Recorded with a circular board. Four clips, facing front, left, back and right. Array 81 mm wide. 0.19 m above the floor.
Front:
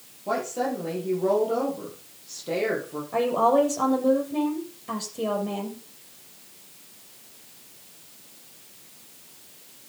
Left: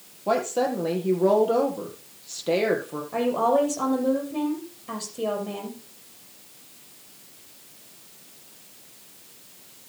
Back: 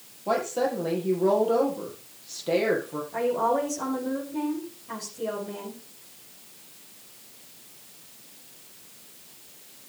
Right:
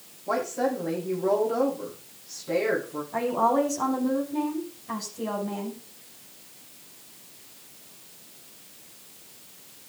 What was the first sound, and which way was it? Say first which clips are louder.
A woman speaking: left 3 dB, back 1 dB; 100° left.